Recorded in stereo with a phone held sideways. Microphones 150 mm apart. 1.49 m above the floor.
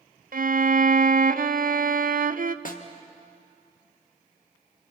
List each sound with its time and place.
0.3 s a violin: 65° right (ahead or behind), 0.6 m
2.6 s a snare drum: 65° left (ahead or behind), 1.6 m